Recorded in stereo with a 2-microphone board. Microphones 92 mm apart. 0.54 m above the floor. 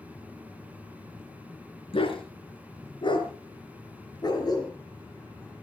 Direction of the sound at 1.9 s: 80° left.